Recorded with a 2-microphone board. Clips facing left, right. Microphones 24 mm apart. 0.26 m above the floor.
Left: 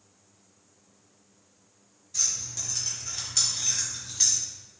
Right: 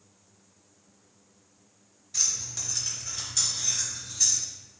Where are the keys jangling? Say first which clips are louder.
Right 1 dB; 30° right (ahead or behind), 1.4 m; by 4.4 s 60° left (ahead or behind), 1.7 m.